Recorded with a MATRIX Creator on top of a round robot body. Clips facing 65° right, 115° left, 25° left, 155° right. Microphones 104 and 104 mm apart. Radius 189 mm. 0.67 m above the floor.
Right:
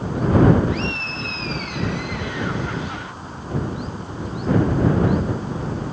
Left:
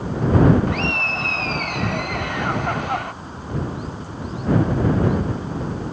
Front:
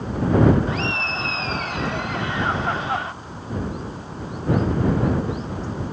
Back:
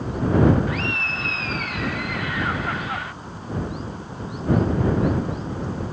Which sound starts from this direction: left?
Laughter, at 0.7 s.